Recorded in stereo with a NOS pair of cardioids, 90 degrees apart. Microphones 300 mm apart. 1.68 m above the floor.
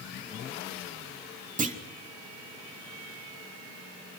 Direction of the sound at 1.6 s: 25° right.